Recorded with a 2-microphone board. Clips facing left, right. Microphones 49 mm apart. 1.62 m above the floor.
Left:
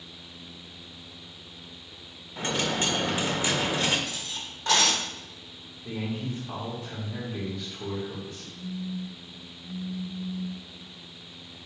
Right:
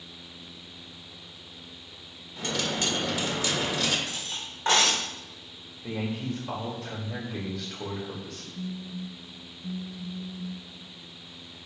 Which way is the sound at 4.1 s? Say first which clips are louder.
Even; 40° right (ahead or behind).